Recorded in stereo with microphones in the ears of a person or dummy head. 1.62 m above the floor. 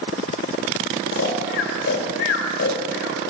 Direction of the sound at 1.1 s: 60° left (ahead or behind).